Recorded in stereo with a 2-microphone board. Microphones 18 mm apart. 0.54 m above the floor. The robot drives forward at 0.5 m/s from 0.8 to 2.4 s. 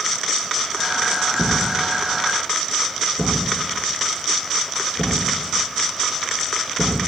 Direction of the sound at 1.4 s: 35° right (ahead or behind).